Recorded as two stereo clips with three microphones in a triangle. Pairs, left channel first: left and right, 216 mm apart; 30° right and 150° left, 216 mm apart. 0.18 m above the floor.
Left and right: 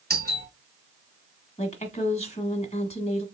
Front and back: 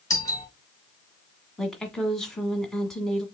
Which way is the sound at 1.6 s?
55° left.